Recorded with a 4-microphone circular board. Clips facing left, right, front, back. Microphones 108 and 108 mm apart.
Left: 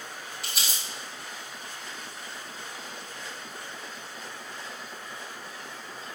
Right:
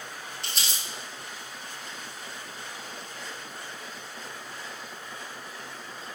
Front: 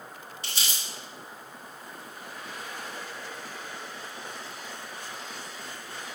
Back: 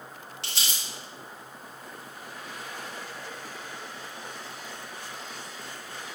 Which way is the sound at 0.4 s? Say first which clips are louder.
Even, even; 175° left.